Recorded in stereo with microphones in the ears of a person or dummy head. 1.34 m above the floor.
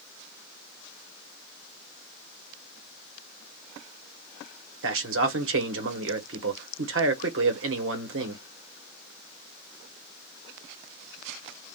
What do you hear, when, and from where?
4.8 s a man speaking: 60° right (ahead or behind), 1.2 m